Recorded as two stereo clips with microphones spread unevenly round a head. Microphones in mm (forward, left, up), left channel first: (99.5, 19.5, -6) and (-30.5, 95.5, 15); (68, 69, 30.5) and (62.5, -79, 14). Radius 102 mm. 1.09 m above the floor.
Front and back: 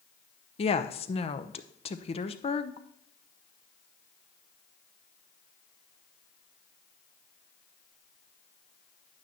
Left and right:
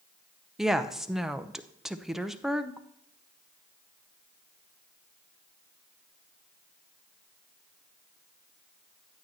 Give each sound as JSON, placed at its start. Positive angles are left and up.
{"t": 0.6, "sound": "a woman speaking", "azimuth_deg": -10, "distance_m": 0.8}